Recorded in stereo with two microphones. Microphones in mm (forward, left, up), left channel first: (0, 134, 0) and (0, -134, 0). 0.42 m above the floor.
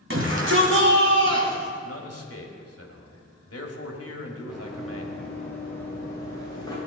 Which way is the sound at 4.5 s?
5° right (ahead or behind).